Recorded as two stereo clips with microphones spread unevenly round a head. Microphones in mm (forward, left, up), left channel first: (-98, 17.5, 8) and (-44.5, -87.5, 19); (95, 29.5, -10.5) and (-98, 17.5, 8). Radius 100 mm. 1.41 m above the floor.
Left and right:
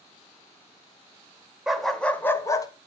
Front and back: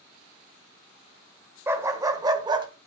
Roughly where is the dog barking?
Behind right.